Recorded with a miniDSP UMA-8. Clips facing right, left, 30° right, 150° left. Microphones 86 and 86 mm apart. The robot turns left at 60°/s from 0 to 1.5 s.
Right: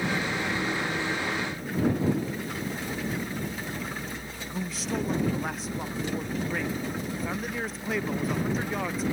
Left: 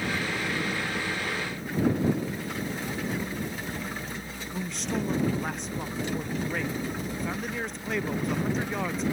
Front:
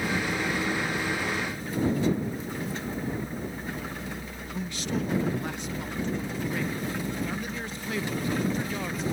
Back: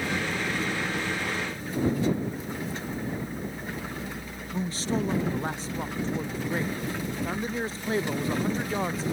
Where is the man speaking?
Straight behind.